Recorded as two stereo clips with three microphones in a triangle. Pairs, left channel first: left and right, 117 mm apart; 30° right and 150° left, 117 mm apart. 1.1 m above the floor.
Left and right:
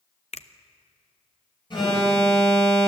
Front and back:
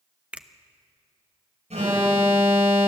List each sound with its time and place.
0.3 s a finger snap: 70° left, 0.7 m
1.7 s an alarm: 140° left, 7.5 m